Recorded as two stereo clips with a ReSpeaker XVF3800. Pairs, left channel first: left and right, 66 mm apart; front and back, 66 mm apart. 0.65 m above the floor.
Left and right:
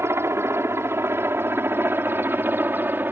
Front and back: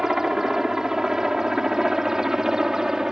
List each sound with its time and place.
0.0 s a helicopter: 100° right; by 3.1 s 105° right